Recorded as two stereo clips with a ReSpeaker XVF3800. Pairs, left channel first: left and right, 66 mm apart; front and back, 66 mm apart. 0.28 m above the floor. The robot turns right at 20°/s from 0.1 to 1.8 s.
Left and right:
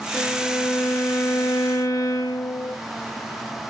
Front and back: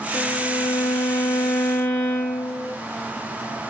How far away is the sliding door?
I don't hear a sliding door.